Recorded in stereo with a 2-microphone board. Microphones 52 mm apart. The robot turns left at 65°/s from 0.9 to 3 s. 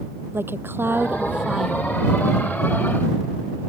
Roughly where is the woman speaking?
Behind right.